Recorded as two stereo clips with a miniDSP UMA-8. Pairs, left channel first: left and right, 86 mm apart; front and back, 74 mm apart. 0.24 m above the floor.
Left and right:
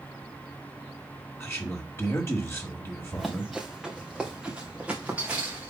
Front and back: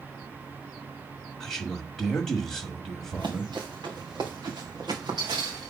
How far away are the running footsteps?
About 1.9 m.